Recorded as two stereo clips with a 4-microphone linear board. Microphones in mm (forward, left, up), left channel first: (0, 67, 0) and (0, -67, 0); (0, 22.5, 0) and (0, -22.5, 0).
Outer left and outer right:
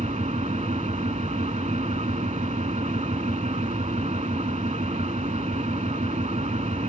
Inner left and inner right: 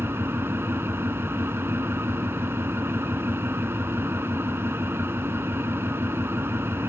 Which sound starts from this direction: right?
An engine running, at 0.0 s.